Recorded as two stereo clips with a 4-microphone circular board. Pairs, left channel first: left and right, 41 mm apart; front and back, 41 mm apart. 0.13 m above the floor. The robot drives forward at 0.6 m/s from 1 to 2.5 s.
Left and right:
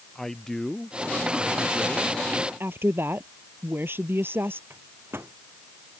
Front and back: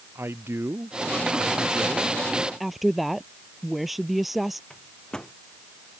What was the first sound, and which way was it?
A man speaking, 170° left.